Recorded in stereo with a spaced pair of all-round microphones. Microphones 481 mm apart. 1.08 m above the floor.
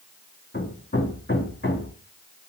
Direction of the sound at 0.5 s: 20° left (ahead or behind).